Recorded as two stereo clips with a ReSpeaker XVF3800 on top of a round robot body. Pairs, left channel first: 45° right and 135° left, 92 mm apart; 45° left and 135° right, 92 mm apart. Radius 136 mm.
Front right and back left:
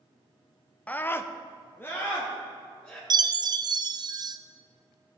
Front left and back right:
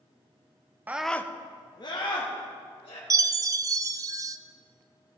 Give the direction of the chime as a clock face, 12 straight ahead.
6 o'clock.